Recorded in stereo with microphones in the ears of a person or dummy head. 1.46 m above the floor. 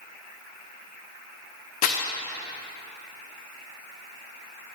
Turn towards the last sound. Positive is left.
turn(degrees=40)  # may be behind; listen again after turning